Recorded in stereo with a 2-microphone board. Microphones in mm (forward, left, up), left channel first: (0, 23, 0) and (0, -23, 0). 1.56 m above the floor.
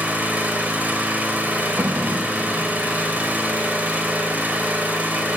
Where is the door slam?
75° right (ahead or behind), 1.8 m.